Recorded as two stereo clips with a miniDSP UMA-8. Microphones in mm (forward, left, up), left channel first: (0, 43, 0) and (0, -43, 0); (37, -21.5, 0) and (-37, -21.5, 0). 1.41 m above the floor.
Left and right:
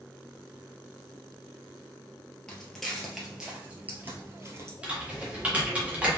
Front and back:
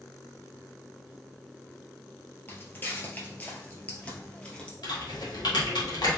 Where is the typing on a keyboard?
15° right, 1.6 m.